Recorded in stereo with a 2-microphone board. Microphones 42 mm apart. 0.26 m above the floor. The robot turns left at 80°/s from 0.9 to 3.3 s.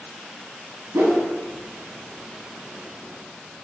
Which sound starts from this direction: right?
A whoosh, at 0.9 s.